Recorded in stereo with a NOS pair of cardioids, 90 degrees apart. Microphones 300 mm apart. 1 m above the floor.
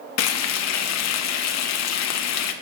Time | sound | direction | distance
0.2 | frying | 60° left | 0.8 m